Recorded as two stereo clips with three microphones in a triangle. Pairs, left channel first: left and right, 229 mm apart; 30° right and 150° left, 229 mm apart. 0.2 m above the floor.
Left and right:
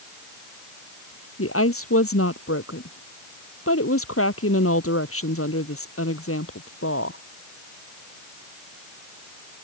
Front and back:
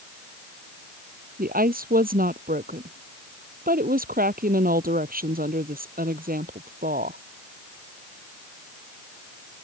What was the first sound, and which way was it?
A woman speaking, 100° left.